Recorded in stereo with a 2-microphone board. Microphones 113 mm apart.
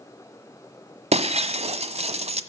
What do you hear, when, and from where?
1.1 s breaking glass: 80° right, 1.1 m